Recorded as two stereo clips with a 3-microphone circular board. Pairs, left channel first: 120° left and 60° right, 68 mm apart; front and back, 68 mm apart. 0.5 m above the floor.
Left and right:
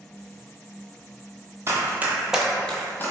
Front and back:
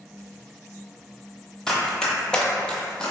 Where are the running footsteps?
80° right, 0.6 m; by 3.1 s 75° left, 0.6 m.